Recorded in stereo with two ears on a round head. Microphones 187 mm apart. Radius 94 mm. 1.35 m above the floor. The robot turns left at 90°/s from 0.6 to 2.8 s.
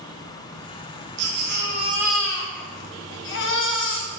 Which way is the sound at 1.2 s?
95° right.